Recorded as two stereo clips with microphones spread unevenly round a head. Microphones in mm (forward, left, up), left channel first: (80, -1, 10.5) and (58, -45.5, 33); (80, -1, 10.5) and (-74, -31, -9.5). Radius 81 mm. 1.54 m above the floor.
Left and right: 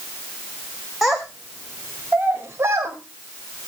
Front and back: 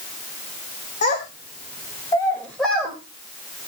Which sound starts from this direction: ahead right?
A child speaking, at 1.0 s.